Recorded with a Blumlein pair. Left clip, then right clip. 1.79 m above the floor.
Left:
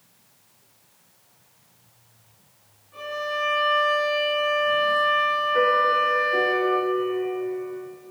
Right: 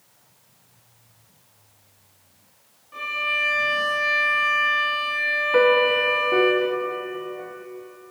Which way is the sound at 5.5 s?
50° right.